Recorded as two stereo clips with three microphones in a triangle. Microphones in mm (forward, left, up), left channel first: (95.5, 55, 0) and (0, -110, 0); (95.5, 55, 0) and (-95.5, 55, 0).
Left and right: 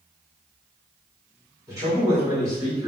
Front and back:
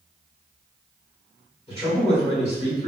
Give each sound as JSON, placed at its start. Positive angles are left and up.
{"t": 1.7, "sound": "a man speaking", "azimuth_deg": -50, "distance_m": 1.8}